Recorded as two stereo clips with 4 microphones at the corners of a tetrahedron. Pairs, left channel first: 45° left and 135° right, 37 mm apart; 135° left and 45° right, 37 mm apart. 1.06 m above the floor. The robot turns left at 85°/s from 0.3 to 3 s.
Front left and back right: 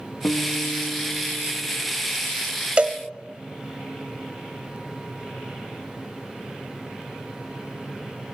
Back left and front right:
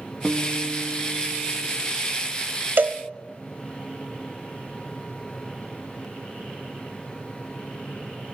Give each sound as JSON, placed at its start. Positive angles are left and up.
{"t": 0.2, "sound": "a guitar", "azimuth_deg": 45, "distance_m": 1.4}
{"t": 2.8, "sound": "a cowbell", "azimuth_deg": -80, "distance_m": 1.0}